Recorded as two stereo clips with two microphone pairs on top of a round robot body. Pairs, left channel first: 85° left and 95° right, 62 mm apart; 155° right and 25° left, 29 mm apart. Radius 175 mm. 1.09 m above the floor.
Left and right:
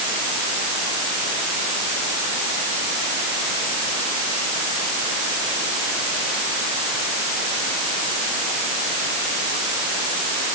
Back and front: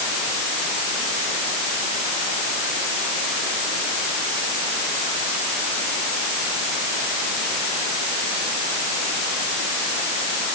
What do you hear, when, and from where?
Only background noise.